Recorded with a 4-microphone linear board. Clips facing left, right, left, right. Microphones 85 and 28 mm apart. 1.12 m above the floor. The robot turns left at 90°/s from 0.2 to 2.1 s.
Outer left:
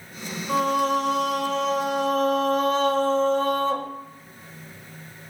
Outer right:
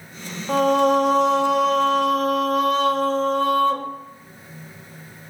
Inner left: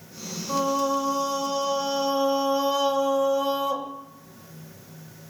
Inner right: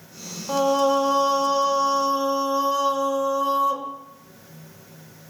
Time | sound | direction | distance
0.5 | singing | 70° right | 1.4 m